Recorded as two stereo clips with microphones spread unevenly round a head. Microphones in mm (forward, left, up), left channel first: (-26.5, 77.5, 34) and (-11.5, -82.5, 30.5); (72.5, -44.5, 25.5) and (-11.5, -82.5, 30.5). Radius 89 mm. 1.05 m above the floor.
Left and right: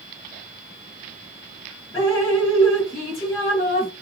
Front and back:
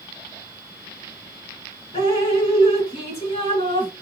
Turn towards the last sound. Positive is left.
turn(degrees=25)